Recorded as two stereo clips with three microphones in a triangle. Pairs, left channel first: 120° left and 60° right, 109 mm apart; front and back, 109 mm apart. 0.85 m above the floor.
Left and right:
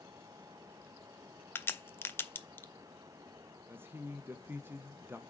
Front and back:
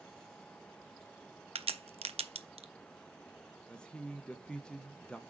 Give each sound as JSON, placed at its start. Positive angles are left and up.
{"t": 1.6, "sound": "a crack", "azimuth_deg": -170, "distance_m": 0.5}
{"t": 3.7, "sound": "a man speaking", "azimuth_deg": -65, "distance_m": 0.5}